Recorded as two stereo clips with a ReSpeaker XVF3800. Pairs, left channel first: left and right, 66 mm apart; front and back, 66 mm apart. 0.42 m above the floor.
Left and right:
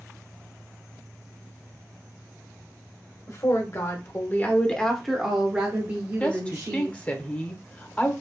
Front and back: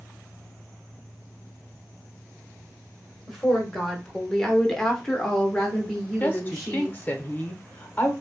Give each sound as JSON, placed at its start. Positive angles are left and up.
{"t": 3.3, "sound": "a woman speaking", "azimuth_deg": 90, "distance_m": 1.5}
{"t": 6.2, "sound": "a woman speaking", "azimuth_deg": 35, "distance_m": 0.9}